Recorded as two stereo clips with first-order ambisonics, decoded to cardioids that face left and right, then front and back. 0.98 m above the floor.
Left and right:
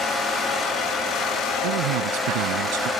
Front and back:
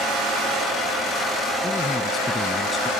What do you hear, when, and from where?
1.6 s a man speaking: 80° right